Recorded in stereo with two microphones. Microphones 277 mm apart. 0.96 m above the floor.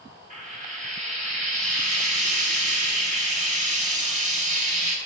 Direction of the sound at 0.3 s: 25° right (ahead or behind).